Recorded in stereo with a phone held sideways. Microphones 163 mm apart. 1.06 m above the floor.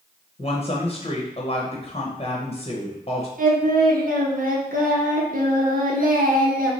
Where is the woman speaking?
35° left (ahead or behind), 0.7 m.